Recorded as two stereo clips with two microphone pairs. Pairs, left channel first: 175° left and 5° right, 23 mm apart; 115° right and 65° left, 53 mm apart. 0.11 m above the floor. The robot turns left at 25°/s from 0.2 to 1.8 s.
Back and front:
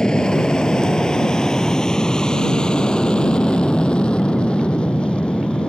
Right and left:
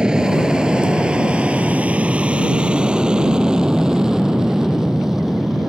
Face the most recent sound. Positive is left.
turn(degrees=145)